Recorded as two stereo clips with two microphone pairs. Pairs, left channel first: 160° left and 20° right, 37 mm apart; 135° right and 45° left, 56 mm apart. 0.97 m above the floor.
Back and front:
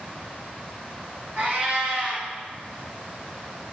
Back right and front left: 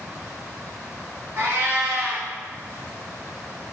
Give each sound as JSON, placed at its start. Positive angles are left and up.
{"t": 1.4, "sound": "a cat meowing", "azimuth_deg": 10, "distance_m": 1.2}